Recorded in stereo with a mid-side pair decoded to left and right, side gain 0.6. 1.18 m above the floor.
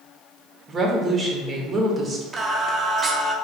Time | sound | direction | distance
0.7 | a woman speaking | 20° right | 1.5 m
2.3 | singing | 15° right | 0.8 m